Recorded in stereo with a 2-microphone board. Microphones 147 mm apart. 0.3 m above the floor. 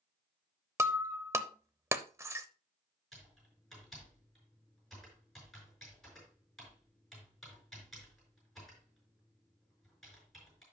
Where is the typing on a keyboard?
Centre (ahead or behind), 5.5 m.